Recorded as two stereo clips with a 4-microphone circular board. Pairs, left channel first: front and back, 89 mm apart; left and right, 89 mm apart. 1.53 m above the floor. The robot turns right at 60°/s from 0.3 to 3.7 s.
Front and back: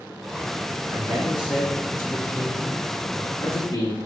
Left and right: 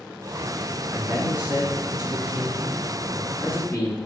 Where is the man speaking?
145° right, 2.5 m; by 4.0 s 25° left, 2.5 m.